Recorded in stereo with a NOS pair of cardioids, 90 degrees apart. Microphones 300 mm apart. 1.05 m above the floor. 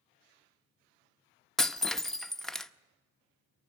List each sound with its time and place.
1.6 s breaking glass: straight ahead, 0.7 m